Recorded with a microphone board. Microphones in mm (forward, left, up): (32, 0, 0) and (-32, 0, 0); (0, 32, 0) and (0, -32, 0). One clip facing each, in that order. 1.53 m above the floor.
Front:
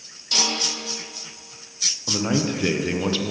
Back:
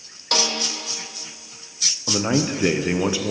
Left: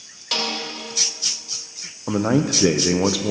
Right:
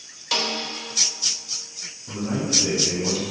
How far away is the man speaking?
About 0.7 m.